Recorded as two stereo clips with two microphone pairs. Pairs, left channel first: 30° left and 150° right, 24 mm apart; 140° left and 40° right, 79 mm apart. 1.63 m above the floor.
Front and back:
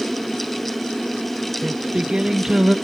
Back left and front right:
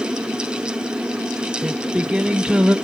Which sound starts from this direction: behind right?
Singing, at 1.6 s.